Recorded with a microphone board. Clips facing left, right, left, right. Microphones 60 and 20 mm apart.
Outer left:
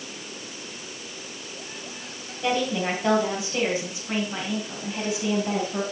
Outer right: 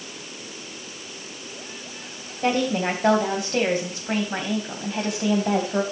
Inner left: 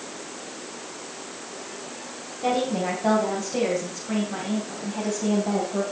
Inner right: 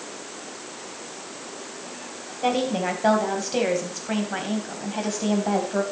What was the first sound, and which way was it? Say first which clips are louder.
A woman speaking: outer right 2 dB, inner right 1 dB; 45° right (ahead or behind).